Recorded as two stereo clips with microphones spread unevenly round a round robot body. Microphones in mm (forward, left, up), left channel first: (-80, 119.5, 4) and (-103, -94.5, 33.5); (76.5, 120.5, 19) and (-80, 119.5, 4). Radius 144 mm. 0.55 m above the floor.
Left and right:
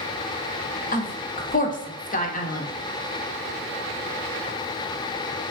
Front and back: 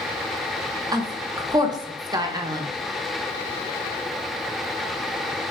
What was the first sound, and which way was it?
A woman speaking, 120° left.